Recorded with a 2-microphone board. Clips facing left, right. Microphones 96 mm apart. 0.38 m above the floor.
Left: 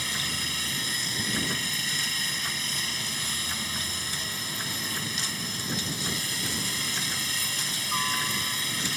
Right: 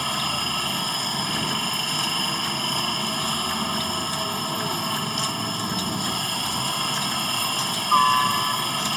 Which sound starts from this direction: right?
A helicopter, at 0.0 s.